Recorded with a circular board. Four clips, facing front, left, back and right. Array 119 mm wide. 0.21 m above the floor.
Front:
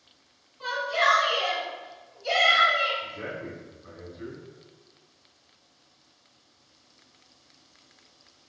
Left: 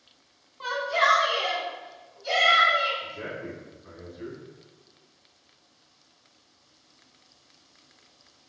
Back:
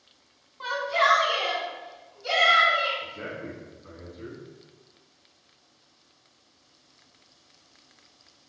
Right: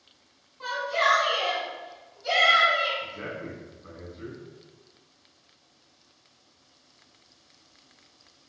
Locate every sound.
0.6 s a shout: 145° left, 1.5 m; by 2.9 s 150° right, 2 m
3.0 s a man speaking: 90° right, 1.8 m